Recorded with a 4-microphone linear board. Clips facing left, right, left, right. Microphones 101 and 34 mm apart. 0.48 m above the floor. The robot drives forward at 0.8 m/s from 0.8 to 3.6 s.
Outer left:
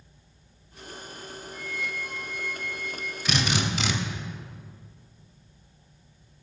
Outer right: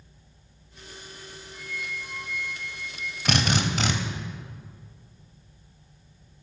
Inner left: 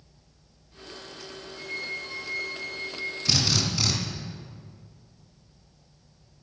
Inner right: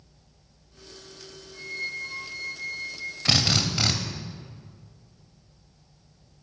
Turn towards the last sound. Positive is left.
turn(degrees=-45)  # may be behind; listen again after turning